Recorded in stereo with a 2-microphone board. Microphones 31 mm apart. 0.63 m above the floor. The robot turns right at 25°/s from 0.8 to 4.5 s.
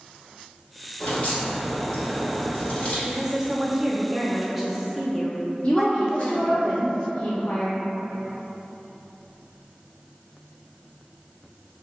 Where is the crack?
80° left, 1.6 m; by 3.0 s 130° left, 1.6 m.